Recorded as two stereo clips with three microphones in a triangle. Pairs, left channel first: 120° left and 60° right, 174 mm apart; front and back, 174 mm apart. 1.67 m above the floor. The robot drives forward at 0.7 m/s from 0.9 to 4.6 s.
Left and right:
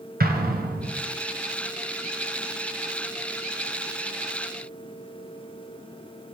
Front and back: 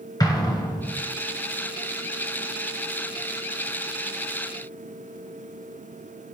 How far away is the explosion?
About 1.0 m.